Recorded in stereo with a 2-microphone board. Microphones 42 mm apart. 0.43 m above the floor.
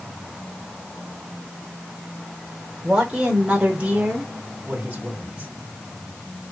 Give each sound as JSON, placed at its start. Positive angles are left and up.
{"t": 2.8, "sound": "a man speaking", "side_deg": -20, "distance_m": 1.0}